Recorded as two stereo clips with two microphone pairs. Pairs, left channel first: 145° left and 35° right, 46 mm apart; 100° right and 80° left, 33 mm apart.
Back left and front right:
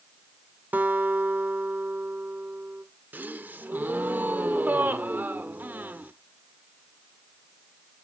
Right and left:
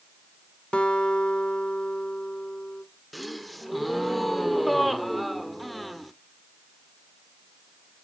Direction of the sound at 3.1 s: 10° right.